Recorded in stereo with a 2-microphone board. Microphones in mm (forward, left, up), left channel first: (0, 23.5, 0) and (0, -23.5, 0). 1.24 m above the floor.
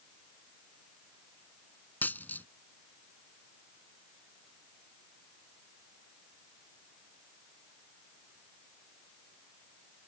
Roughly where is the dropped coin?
Left.